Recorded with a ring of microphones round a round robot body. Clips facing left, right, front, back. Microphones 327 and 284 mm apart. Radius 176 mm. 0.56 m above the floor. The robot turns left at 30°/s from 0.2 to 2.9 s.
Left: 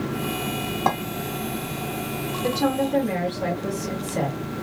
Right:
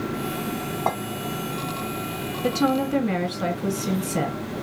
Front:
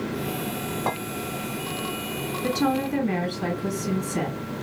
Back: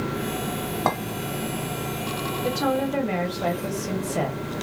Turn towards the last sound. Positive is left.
turn(degrees=-45)